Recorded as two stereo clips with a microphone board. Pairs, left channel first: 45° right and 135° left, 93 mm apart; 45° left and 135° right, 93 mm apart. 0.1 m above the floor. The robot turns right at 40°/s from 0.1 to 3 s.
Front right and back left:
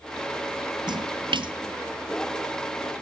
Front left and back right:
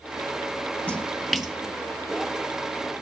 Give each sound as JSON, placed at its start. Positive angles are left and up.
{"t": 0.9, "sound": "a splash", "azimuth_deg": 115, "distance_m": 1.1}